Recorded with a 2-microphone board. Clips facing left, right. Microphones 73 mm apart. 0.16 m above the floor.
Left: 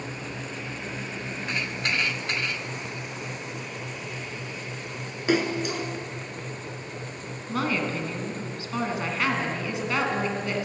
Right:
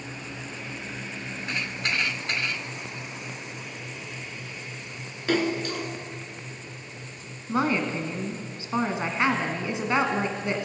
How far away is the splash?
About 0.9 m.